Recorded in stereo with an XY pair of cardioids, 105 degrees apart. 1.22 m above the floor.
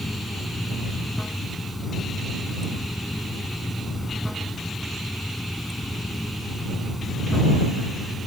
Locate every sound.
0.0 s running water: 5° left